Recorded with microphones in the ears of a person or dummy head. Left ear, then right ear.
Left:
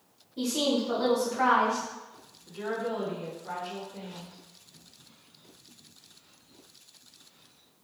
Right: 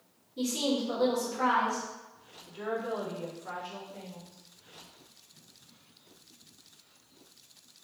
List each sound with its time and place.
0.4 s a woman speaking: 10° left (ahead or behind), 1.6 m
2.5 s a woman speaking: 15° right (ahead or behind), 1.0 m